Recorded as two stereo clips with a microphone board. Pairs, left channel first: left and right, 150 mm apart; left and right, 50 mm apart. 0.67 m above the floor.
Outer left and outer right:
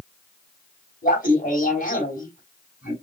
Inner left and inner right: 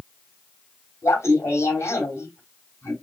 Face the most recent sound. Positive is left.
turn(degrees=70)  # may be behind; listen again after turning